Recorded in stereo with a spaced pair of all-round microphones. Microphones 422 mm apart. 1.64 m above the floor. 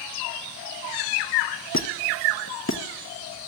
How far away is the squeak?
About 1.1 m.